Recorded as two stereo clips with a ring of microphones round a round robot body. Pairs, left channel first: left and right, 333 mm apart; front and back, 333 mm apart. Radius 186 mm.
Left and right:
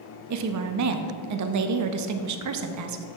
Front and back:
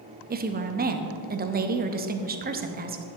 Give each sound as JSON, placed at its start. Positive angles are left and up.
{"t": 0.3, "sound": "a woman speaking", "azimuth_deg": -120, "distance_m": 0.7}